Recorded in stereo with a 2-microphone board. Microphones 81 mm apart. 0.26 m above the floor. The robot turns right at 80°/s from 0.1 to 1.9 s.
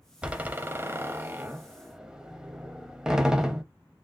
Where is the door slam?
10° right (ahead or behind), 0.6 m.